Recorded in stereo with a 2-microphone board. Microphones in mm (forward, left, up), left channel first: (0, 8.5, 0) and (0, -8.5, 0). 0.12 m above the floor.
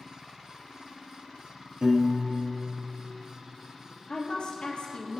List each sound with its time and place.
1.8 s a piano: 50° right (ahead or behind), 2 m
4.1 s a woman speaking: 65° left (ahead or behind), 3 m